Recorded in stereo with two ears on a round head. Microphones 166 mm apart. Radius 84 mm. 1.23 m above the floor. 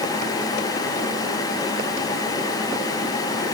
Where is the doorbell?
I don't hear a doorbell.